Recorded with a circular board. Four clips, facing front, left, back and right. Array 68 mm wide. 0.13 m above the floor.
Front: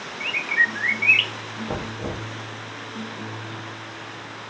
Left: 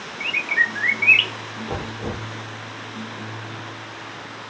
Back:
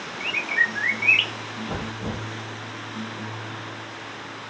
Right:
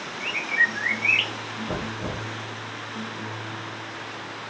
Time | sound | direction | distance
0.2 | a bird | 75° left | 0.8 m
1.7 | knocking | 40° right | 1.8 m